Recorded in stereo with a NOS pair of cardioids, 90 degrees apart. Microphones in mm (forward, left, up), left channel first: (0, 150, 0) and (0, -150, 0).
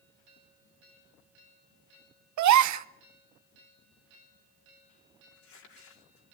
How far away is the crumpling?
About 4.5 m.